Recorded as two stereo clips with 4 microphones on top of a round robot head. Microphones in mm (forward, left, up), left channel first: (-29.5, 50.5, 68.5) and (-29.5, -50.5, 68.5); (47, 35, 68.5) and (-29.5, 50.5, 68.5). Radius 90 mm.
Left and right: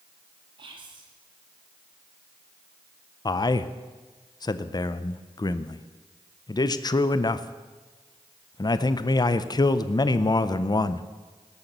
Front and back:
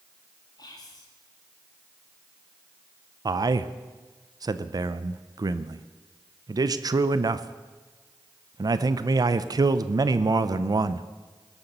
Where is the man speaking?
135° left, 0.6 m.